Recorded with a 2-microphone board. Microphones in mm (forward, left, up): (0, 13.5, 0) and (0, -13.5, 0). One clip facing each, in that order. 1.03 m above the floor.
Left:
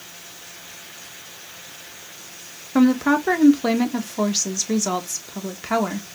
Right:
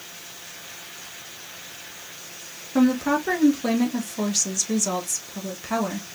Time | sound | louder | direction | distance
2.8 | a woman speaking | left 3 dB | 25° left (ahead or behind) | 1.2 m